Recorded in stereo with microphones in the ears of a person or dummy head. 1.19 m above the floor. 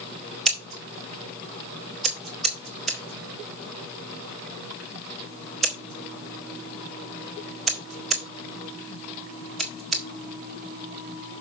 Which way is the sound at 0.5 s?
Centre (ahead or behind).